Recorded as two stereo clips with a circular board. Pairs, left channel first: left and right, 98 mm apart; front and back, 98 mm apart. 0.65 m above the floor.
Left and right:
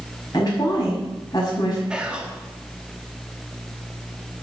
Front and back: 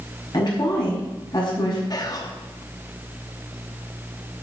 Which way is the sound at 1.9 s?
15° right.